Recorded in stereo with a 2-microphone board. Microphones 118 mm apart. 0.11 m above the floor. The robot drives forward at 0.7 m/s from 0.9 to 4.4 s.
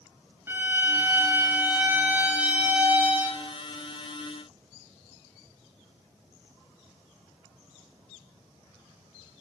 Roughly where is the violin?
Right.